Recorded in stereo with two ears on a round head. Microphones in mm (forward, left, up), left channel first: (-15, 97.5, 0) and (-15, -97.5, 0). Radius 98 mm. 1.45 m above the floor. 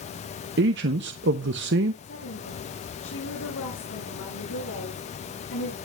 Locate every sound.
0.6 s a man speaking: 55° right (ahead or behind), 0.8 m
2.0 s a woman speaking: 70° left (ahead or behind), 6.5 m